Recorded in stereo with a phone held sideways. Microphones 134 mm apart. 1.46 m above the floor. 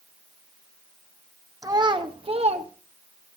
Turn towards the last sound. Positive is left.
turn(degrees=-50)  # may be behind; listen again after turning